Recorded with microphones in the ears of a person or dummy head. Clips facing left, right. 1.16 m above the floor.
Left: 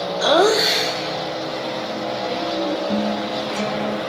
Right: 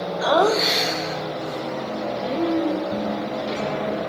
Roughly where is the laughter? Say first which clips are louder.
Left 3 dB; left.